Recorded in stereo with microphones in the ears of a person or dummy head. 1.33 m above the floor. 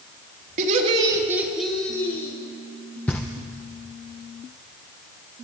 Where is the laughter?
45° right (ahead or behind), 1.8 m; by 2.4 s 20° left (ahead or behind), 3 m.